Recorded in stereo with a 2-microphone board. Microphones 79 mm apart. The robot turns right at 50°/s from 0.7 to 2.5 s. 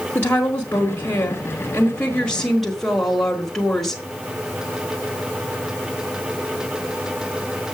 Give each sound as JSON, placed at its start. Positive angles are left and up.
{"t": 0.1, "sound": "a woman speaking", "side_deg": 25, "distance_m": 1.4}